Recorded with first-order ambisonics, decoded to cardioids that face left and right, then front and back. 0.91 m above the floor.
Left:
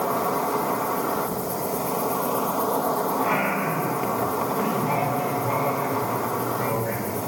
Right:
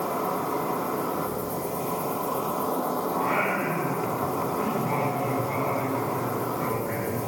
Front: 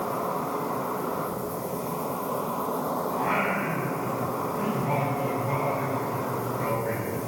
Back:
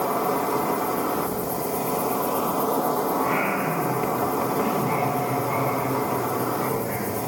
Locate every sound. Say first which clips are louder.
0.0 s an insect: left 4 dB, back 5 dB; 130° left, 1.5 m
3.1 s singing: left 2 dB, back 3 dB; 60° left, 5 m